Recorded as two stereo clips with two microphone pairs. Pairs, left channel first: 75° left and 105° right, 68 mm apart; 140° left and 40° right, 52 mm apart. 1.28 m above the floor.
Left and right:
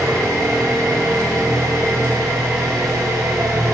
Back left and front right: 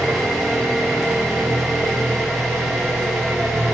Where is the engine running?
130° right, 3.5 m.